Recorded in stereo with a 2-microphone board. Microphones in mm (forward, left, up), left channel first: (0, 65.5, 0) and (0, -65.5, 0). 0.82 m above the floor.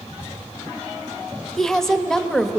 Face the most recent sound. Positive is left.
turn(degrees=5)  # may be behind; listen again after turning